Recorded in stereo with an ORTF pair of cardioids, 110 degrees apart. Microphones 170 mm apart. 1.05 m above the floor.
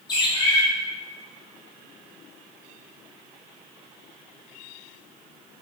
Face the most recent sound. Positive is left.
turn(degrees=25)